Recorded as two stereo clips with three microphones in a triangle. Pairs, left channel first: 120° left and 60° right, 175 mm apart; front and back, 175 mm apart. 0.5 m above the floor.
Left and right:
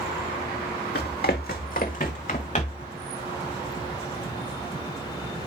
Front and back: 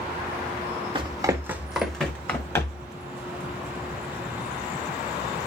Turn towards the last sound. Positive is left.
turn(degrees=70)